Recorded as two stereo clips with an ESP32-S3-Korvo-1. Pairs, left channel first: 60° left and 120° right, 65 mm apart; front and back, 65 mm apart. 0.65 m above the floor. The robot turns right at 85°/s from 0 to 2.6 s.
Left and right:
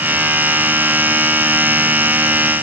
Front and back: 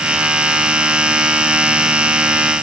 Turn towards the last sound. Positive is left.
No sound to turn to.